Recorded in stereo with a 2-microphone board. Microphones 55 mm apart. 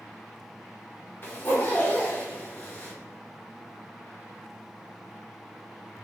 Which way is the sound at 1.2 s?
40° left (ahead or behind).